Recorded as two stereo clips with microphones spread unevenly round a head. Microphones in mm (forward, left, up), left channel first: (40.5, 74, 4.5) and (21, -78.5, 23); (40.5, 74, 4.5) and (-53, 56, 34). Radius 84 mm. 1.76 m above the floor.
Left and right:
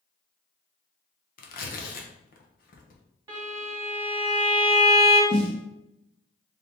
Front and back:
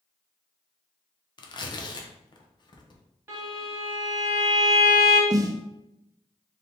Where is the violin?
150° right, 1.4 m.